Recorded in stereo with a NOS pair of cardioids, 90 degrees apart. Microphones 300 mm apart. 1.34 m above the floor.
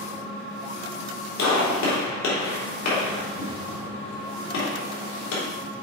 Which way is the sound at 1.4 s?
65° left.